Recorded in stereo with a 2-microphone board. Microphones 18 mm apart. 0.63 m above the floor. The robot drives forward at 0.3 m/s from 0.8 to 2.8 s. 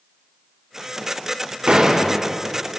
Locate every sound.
1.7 s a door slam: 70° right (ahead or behind), 1.8 m; by 2.1 s 65° right (ahead or behind), 1.8 m